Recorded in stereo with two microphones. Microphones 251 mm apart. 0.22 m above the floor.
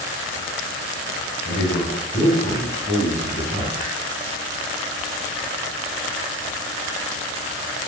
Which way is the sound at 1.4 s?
15° left (ahead or behind).